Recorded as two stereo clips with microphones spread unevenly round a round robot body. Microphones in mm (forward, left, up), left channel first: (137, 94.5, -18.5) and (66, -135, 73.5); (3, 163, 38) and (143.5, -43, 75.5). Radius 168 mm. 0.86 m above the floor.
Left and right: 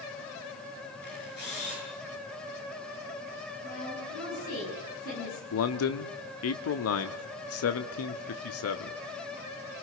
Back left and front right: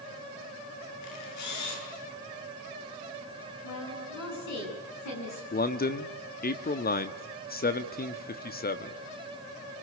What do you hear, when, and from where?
1.0 s a camera shutter: 130° left, 8 m
3.6 s a woman speaking: 130° left, 10 m
5.5 s a man speaking: 70° left, 1.3 m